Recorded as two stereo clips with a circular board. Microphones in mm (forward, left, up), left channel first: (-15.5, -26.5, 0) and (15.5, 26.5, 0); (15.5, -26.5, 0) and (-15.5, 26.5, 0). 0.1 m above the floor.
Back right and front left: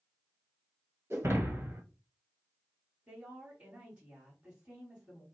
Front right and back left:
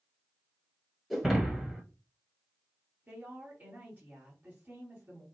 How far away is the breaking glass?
About 1.2 m.